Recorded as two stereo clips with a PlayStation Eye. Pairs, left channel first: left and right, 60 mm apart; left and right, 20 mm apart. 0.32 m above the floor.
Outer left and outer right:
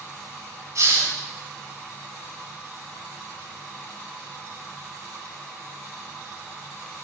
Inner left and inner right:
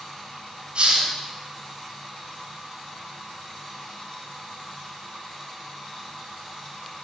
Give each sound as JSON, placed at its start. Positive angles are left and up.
{"t": 0.8, "sound": "a hiss", "side_deg": -65, "distance_m": 3.0}